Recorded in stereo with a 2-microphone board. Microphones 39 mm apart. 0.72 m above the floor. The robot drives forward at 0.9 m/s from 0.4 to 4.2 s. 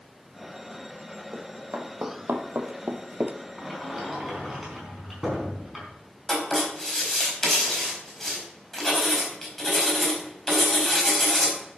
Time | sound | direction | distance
1.3 | running footsteps | 55° right (ahead or behind) | 3 m
3.6 | a sliding door | centre (ahead or behind) | 4 m
6.3 | writing | 10° left (ahead or behind) | 4.5 m